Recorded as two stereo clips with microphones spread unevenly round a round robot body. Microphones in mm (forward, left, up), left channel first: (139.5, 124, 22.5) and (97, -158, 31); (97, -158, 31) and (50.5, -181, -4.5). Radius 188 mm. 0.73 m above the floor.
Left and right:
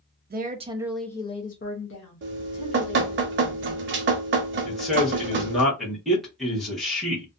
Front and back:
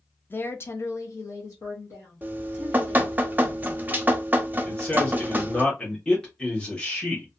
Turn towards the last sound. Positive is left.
turn(degrees=165)